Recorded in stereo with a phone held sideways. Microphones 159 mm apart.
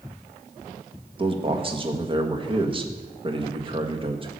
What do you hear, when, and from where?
1.2 s a man speaking: 35° right (ahead or behind), 1.5 m